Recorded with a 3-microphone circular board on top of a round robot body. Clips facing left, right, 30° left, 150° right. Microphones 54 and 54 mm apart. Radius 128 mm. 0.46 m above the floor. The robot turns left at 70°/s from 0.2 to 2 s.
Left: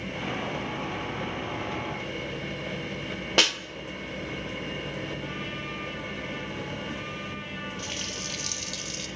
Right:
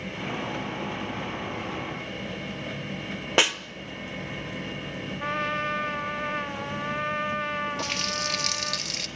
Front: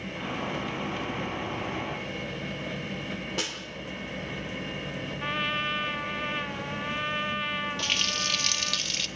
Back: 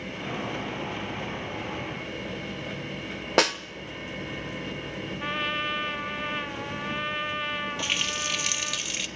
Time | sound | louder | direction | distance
3.4 | a snare drum | right 2 dB, back 15 dB | 165° right | 1.3 m
5.2 | a trumpet | right 7 dB, even | 60° right | 1.3 m
7.8 | a running tap | right 6 dB, even | 75° right | 1.1 m